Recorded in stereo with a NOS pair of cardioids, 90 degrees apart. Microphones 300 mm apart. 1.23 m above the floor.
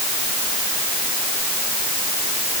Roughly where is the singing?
No singing in this recording.